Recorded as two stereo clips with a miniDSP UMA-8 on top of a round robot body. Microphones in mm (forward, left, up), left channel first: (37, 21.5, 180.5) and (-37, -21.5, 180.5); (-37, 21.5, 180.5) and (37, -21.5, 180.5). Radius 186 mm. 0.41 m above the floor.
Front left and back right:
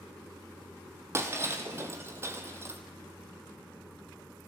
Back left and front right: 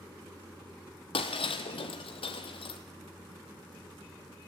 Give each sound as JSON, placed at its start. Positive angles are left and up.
{"t": 1.1, "sound": "breaking glass", "azimuth_deg": 150, "distance_m": 0.9}